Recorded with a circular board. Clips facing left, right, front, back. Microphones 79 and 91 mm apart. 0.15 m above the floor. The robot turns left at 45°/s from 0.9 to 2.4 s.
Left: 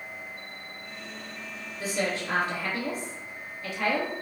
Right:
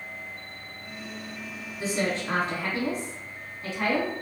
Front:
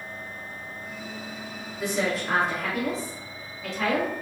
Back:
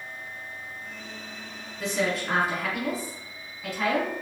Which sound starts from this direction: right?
A woman speaking, at 1.8 s.